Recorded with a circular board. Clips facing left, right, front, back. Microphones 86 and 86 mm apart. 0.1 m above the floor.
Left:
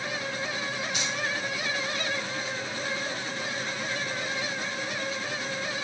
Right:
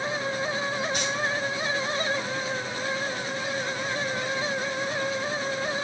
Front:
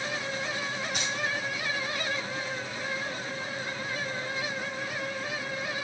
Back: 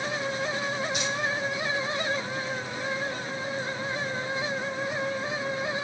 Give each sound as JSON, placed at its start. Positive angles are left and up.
{"t": 0.9, "sound": "keys jangling", "azimuth_deg": -45, "distance_m": 3.0}